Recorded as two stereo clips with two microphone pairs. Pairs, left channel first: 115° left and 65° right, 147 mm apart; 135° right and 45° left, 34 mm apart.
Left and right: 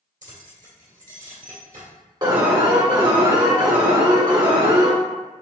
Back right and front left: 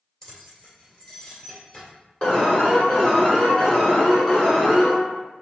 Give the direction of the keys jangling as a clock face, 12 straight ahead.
2 o'clock.